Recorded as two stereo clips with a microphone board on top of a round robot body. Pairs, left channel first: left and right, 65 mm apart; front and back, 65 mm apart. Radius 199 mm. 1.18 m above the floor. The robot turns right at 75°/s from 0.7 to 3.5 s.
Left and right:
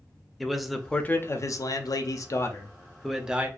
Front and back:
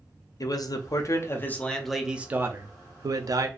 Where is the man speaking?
Straight ahead, 0.6 m; by 3.5 s 150° right, 0.6 m.